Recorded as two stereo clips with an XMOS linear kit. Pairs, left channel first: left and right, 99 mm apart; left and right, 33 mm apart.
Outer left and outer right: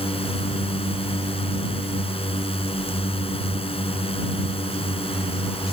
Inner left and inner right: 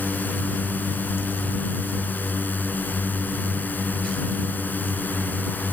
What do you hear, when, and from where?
0.0 s a drone: 65° left (ahead or behind)